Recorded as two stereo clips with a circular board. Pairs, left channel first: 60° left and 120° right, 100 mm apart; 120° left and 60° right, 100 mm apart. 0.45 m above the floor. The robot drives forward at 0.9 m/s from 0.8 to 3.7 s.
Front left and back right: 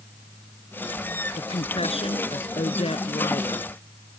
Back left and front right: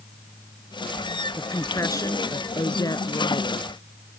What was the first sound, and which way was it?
A woman speaking, 60° left.